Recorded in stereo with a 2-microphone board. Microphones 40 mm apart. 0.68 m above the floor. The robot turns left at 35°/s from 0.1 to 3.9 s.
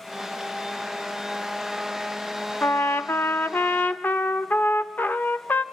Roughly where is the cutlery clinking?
I don't hear cutlery clinking.